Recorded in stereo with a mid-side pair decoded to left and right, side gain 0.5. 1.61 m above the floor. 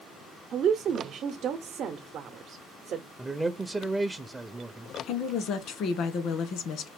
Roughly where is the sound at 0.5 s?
Ahead right.